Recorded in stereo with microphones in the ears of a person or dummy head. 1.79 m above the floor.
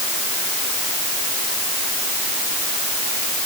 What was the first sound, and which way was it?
Only background noise.